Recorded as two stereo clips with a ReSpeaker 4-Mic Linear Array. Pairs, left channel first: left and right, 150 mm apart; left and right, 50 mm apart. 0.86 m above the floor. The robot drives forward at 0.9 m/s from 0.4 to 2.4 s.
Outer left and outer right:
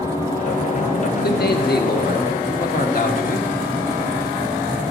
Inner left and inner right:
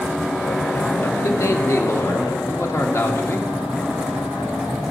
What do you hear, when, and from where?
1.2 s a man speaking: 70° left (ahead or behind), 1.4 m; by 3.5 s 60° left (ahead or behind), 1.5 m